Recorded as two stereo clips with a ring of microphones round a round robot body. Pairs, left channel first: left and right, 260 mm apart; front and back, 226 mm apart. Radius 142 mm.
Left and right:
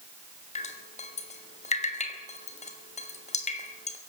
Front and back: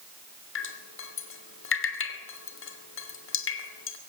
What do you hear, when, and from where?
0.6 s dripping: 25° left, 3 m